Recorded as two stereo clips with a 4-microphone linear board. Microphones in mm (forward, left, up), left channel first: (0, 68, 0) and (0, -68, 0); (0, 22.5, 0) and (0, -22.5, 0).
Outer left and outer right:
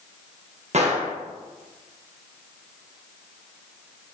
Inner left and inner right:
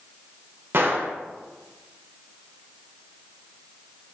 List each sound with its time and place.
0.7 s a gunshot: 55° right (ahead or behind), 0.5 m